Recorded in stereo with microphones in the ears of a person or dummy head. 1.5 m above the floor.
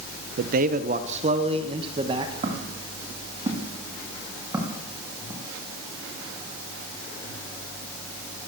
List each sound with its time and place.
0.4 s a man speaking: 55° right (ahead or behind), 0.8 m; by 2.3 s 20° right (ahead or behind), 1.6 m
2.4 s footsteps: 40° right (ahead or behind), 4.5 m; by 5.4 s 10° right (ahead or behind), 5 m